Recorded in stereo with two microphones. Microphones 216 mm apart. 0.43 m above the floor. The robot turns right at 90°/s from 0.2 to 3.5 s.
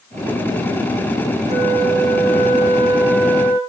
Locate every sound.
1.5 s a flute: 160° right, 5.5 m; by 3.6 s 25° left, 5.5 m